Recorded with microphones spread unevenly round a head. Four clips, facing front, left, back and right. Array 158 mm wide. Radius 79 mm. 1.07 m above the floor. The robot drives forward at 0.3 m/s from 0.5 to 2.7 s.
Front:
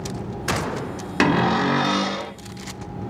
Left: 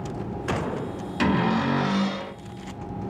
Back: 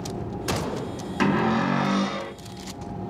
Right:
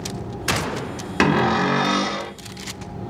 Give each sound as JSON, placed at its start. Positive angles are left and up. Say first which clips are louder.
{"t": 1.2, "sound": "a cupboard door", "louder": "right 4 dB, front 3 dB", "azimuth_deg": -55, "distance_m": 0.9}